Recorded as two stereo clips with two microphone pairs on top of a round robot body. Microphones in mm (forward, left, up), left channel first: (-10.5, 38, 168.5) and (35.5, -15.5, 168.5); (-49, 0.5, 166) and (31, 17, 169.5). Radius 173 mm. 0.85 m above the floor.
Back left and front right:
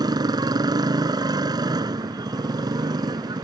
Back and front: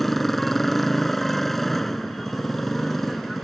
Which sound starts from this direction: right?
A motorcycle, at 0.0 s.